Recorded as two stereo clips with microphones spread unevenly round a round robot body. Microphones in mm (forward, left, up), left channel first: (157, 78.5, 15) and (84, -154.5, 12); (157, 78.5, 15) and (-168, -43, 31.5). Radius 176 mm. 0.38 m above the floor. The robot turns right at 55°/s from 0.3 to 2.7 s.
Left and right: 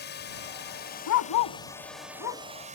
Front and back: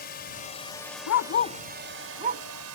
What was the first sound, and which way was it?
A drone, 70° left.